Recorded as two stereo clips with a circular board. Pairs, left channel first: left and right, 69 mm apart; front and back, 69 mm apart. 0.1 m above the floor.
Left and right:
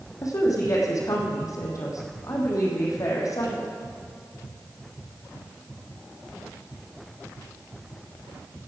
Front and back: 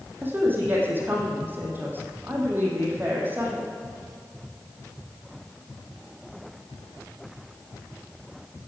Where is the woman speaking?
120° left, 3.5 m.